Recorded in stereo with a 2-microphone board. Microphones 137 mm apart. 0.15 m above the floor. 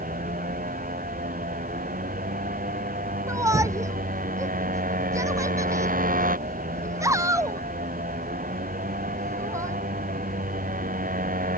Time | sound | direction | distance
0.0 | a motorcycle | 70° right (ahead or behind) | ?
3.3 | a shout | 20° right (ahead or behind) | ?